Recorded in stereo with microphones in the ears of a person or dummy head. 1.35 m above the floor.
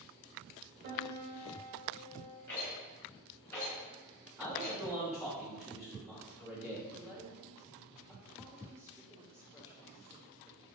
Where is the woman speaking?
15° right (ahead or behind), 3.5 m.